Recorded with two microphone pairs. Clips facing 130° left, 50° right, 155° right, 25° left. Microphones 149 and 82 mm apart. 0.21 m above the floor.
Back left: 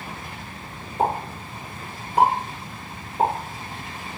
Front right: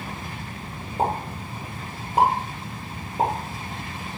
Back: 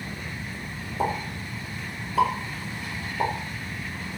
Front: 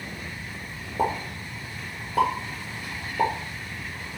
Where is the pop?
5° left, 2.5 m.